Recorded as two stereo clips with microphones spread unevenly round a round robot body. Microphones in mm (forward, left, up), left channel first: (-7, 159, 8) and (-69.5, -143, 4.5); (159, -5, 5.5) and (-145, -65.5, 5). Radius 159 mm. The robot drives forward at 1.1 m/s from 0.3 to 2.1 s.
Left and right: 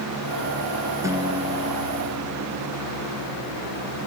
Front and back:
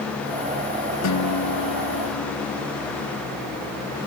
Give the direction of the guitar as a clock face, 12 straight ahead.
1 o'clock.